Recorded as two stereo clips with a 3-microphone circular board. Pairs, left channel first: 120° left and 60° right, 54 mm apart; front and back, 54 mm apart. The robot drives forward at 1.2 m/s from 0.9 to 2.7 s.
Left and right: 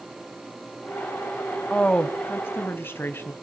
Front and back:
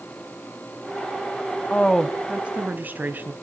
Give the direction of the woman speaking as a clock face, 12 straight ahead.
10 o'clock.